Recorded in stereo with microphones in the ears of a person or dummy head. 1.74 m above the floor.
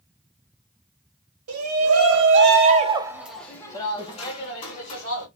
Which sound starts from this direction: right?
A shout, at 1.5 s.